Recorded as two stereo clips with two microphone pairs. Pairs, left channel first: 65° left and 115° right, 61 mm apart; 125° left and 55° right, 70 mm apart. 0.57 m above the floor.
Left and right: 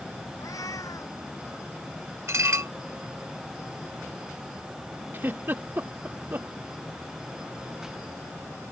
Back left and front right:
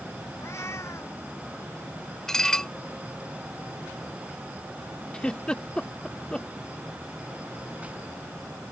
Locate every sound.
0.4 s a cat meowing: 80° left
2.3 s dishes clattering: 155° right
5.1 s a giggle: 165° right